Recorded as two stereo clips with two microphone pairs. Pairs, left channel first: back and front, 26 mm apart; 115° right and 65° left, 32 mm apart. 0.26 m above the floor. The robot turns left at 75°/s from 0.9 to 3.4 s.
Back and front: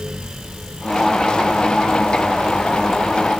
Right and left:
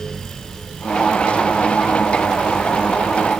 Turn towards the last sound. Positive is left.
No sound to turn to.